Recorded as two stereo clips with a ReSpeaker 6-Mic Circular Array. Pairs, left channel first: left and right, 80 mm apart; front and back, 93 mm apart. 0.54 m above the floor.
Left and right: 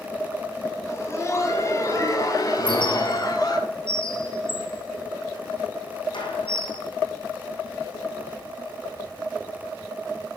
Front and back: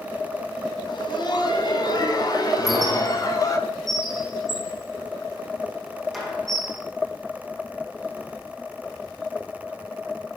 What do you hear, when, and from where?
0.9 s laughter: 35° left, 4 m; by 3.6 s 50° left, 4.5 m
2.6 s a squeak: 90° left, 5 m